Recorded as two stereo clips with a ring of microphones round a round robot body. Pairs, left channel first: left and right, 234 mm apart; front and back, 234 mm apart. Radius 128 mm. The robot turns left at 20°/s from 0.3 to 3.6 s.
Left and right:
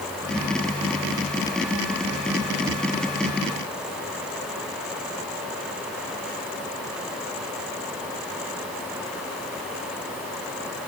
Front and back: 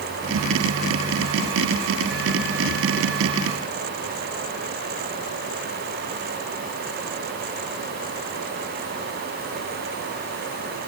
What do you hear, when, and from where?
Only background noise.